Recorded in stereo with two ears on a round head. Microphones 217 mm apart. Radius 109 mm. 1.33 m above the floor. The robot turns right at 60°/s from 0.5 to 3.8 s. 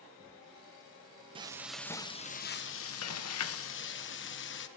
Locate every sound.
1.4 s frying: 25° right, 1.1 m; by 4.7 s 125° left, 1.1 m